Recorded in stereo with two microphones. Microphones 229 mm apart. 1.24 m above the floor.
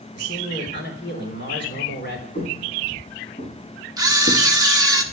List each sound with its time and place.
0.1 s a man speaking: 50° left (ahead or behind), 3.5 m
2.4 s footsteps: 45° left (ahead or behind), 4 m; by 4.5 s 35° left (ahead or behind), 3 m
4.0 s a camera shutter: 15° right (ahead or behind), 1.2 m